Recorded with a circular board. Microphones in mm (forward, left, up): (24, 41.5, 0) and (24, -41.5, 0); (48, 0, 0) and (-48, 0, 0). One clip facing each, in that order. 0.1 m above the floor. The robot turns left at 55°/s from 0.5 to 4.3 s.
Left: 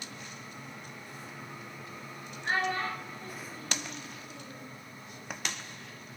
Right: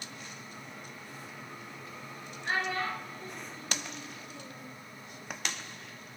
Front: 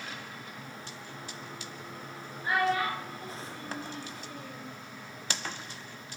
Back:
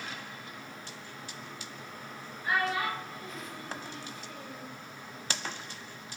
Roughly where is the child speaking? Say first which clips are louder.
Left 1 dB, front 2 dB; ahead left.